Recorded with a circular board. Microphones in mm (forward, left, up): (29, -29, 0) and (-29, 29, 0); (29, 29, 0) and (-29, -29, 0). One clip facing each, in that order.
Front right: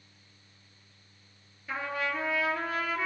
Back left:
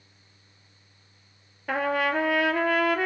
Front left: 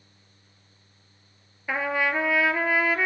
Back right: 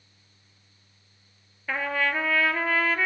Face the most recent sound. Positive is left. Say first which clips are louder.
# back left 8 dB, front left 2 dB
turn(degrees=120)